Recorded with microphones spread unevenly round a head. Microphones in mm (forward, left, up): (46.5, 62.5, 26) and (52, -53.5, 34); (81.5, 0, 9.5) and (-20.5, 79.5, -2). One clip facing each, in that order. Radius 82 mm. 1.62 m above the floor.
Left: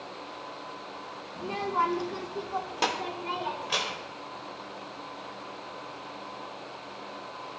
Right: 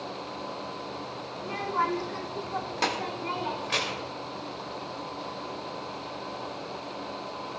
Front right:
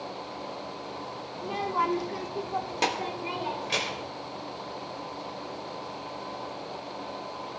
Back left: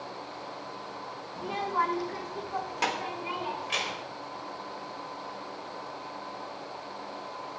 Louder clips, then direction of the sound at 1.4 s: Left 1 dB, front right 1 dB; 60° left.